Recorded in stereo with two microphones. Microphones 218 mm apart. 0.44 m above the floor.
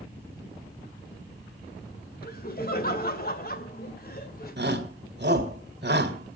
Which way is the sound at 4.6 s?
50° right (ahead or behind).